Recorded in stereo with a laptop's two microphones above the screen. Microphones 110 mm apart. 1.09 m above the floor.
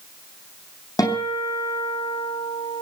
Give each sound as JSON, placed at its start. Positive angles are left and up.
{"t": 1.0, "sound": "a guitar", "side_deg": 35, "distance_m": 8.0}